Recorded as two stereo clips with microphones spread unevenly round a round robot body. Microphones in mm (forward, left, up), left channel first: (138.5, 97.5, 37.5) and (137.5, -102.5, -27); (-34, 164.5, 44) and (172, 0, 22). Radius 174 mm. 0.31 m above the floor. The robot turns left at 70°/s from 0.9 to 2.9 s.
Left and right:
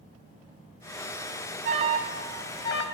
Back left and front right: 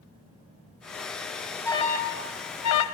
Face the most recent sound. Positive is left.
turn(degrees=140)